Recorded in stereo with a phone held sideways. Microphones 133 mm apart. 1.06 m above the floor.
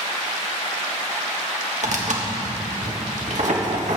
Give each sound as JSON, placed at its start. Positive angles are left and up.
{"t": 1.8, "sound": "tearing paper", "side_deg": -65, "distance_m": 1.5}